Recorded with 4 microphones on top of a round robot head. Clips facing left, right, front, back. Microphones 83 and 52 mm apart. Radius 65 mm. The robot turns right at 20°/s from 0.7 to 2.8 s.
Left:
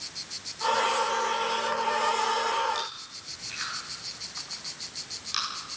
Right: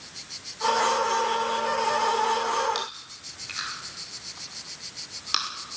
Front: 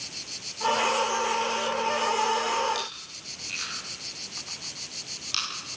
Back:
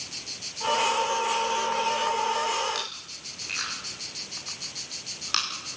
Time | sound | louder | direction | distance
2.8 | chewing | right 1 dB, front 1 dB | 120° right | 5.5 m